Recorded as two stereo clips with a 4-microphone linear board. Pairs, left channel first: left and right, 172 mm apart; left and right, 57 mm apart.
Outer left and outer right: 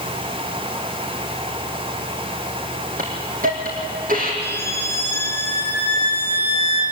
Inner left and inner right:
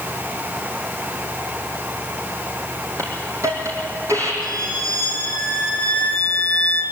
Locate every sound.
3.0 s a hiss: 55° right (ahead or behind), 3.5 m
4.4 s a violin: 70° right (ahead or behind), 4.5 m